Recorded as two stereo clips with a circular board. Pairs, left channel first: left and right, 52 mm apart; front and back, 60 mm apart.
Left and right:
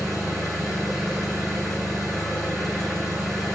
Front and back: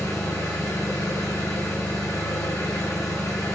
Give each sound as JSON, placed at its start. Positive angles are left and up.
{"t": 0.0, "sound": "an engine running", "azimuth_deg": 5, "distance_m": 5.0}